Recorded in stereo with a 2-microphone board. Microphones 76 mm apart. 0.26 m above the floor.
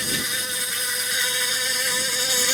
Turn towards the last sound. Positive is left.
turn(degrees=-5)  # may be behind; listen again after turning